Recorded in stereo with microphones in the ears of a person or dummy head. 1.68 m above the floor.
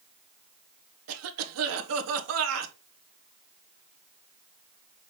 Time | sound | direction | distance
1.1 | a cough | 80° right | 1.3 m